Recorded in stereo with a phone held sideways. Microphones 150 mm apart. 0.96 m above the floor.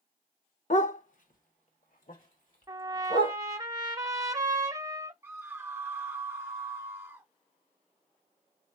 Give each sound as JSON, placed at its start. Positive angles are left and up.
{"t": 0.7, "sound": "a dog barking", "side_deg": 55, "distance_m": 0.8}
{"t": 2.7, "sound": "a trumpet", "side_deg": -25, "distance_m": 0.9}
{"t": 5.2, "sound": "a scream", "side_deg": -15, "distance_m": 1.0}